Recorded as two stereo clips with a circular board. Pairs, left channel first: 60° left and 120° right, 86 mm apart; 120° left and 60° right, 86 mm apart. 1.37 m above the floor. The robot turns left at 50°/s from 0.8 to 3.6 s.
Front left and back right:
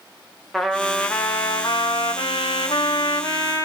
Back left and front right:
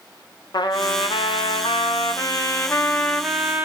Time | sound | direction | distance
0.5 | a trumpet | 150° left | 0.6 m